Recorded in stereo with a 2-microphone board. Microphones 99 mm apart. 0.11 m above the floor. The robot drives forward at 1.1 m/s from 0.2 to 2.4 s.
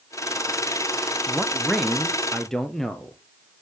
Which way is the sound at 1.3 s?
5° left (ahead or behind).